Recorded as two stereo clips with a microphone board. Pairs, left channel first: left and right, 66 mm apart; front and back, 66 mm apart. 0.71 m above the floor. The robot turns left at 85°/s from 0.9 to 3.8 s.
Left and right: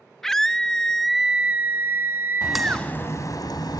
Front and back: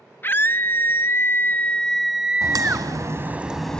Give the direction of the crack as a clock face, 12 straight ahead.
6 o'clock.